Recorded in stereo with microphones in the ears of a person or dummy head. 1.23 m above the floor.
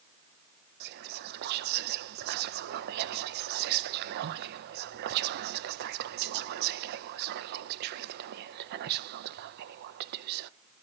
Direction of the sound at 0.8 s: 50° right (ahead or behind).